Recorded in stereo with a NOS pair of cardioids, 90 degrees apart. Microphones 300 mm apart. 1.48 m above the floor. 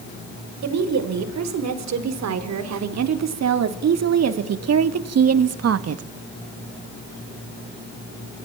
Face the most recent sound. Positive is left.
turn(degrees=-50)